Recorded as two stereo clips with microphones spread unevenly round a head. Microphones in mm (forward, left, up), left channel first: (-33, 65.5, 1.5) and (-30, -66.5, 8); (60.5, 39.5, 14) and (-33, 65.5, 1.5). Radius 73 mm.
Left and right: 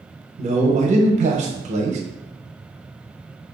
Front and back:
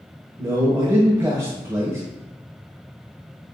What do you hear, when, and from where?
0.4 s a man speaking: 125° right, 0.7 m